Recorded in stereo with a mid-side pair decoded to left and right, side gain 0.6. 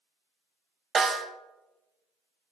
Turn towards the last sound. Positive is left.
turn(degrees=-35)